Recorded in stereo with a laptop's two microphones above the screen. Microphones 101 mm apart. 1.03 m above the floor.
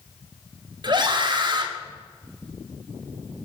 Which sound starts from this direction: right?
A scream, at 0.8 s.